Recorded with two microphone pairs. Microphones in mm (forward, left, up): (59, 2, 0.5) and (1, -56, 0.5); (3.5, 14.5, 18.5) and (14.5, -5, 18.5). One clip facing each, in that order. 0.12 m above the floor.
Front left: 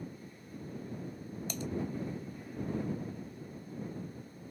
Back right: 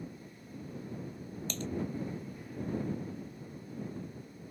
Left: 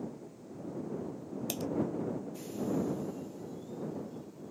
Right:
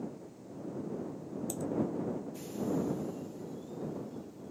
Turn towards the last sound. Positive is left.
turn(degrees=125)